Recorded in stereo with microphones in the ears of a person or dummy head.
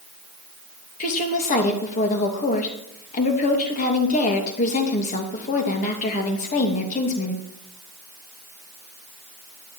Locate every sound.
1.0 s a woman speaking: 40° left (ahead or behind), 2.5 m